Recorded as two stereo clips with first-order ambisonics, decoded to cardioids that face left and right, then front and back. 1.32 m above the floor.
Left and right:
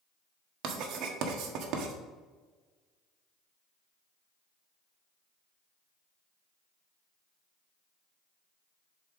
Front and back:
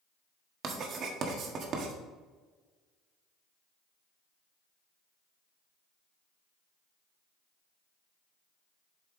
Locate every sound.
0.6 s writing: 130° right, 1.1 m